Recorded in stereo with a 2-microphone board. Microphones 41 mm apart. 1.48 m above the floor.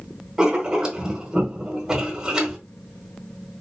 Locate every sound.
0.4 s writing: 20° right (ahead or behind), 1.4 m